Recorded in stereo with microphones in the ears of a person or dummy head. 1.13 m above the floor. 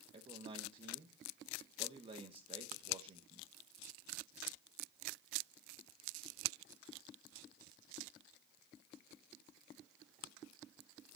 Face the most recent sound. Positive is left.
turn(degrees=-35)  # may be behind; listen again after turning